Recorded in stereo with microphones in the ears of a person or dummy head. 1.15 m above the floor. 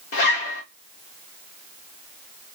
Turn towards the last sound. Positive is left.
turn(degrees=60)  # may be behind; listen again after turning